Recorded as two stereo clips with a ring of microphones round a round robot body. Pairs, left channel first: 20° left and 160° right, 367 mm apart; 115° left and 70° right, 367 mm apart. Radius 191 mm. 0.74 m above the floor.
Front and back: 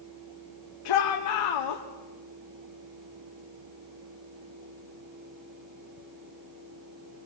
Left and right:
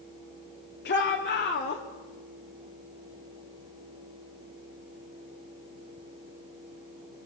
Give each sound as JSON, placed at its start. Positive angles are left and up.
{"t": 0.8, "sound": "a shout", "azimuth_deg": 50, "distance_m": 2.0}